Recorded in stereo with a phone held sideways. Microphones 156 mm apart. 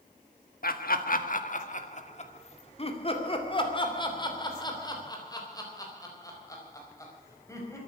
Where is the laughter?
70° left (ahead or behind), 1.5 m; by 7.8 s 20° left (ahead or behind), 5 m.